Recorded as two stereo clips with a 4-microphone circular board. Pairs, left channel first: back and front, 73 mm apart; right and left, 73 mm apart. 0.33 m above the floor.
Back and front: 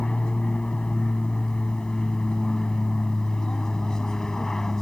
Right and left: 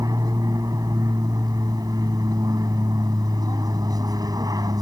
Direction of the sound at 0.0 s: 105° left.